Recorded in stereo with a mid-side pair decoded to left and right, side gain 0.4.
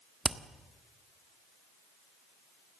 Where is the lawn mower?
No lawn mower in this recording.